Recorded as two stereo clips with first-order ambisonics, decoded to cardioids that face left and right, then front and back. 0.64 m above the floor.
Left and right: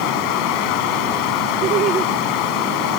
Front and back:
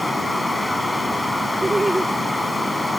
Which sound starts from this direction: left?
Running water, at 0.0 s.